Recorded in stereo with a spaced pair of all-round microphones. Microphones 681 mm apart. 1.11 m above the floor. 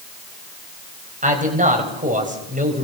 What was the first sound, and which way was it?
A man speaking, 10° right (ahead or behind).